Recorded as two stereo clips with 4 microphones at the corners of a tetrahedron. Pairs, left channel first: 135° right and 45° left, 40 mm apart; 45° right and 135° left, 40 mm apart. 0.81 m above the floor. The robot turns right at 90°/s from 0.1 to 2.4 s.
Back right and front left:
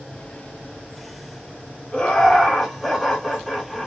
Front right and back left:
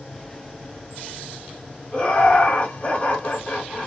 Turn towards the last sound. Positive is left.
turn(degrees=-40)